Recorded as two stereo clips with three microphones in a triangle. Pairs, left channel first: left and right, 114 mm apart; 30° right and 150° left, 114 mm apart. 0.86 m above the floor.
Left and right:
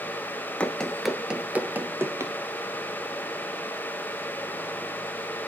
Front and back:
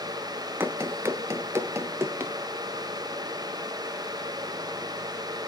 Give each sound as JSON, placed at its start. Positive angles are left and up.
{"t": 0.6, "sound": "running footsteps", "azimuth_deg": 145, "distance_m": 0.8}